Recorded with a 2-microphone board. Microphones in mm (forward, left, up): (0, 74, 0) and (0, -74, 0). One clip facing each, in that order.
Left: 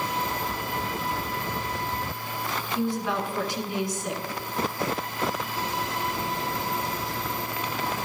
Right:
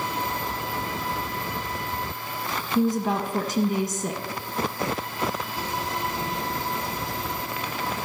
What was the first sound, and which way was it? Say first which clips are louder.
A woman speaking: right 5 dB; 45° right (ahead or behind).